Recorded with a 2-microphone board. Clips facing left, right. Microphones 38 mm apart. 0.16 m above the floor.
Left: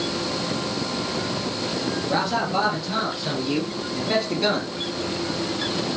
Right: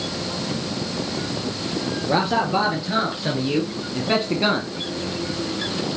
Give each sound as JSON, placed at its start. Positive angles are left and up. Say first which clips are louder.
{"t": 2.1, "sound": "a man speaking", "louder": "right 4 dB", "side_deg": -35, "distance_m": 3.5}